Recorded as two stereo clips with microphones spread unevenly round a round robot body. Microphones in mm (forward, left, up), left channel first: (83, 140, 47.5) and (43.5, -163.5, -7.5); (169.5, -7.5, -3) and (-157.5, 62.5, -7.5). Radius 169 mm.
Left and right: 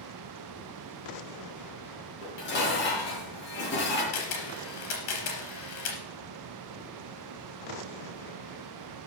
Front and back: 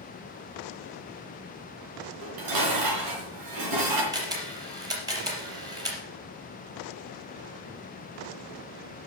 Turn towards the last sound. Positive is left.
turn(degrees=90)